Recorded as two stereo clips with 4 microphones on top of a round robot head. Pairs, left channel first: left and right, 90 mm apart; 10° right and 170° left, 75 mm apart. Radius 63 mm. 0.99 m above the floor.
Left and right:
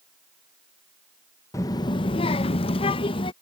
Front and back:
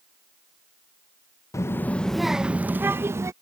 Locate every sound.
1.5 s a child speaking: 35° left; by 3.3 s 115° left